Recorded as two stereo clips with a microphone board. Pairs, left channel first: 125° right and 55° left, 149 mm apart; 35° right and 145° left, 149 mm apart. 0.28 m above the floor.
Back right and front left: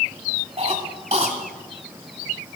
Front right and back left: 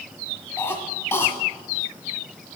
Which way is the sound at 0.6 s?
30° left.